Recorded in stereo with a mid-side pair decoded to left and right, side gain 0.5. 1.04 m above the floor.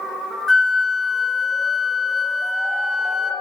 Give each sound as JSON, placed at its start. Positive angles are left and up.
{"t": 0.5, "sound": "a flute", "azimuth_deg": 10, "distance_m": 1.2}